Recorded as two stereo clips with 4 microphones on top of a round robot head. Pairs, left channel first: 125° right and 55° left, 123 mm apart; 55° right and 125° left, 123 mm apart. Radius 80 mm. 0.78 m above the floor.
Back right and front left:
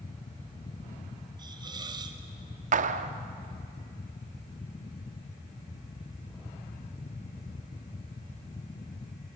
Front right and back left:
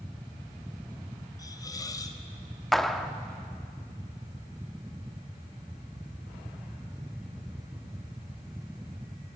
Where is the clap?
35° left, 0.9 m.